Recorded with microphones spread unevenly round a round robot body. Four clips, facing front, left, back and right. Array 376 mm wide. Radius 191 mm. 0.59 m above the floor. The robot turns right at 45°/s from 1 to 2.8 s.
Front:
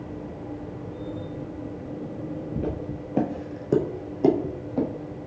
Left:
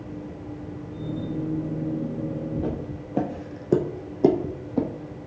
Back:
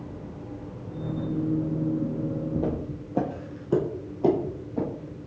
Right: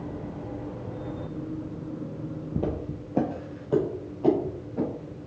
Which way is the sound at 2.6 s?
75° right.